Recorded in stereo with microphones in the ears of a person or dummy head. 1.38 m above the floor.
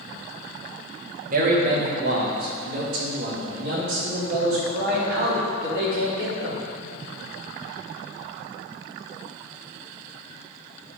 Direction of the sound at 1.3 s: 45° right (ahead or behind).